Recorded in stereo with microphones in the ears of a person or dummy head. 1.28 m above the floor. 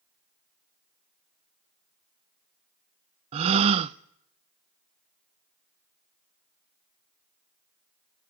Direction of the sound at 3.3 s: 30° right (ahead or behind).